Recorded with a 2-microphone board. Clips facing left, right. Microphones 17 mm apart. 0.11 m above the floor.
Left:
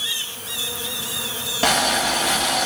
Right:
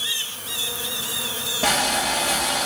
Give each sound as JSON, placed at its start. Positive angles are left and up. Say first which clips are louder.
{"t": 1.6, "sound": "boiling", "louder": "left 3 dB", "side_deg": 65, "distance_m": 6.5}